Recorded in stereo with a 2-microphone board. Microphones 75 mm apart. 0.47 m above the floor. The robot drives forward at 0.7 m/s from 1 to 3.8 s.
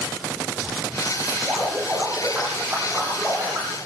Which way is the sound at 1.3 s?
10° right (ahead or behind).